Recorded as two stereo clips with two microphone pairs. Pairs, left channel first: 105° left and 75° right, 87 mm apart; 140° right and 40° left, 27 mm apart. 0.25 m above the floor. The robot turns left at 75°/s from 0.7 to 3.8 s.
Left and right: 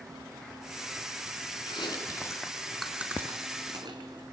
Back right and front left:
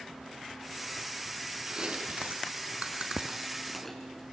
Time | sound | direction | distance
1.7 | chewing | 100° left | 3 m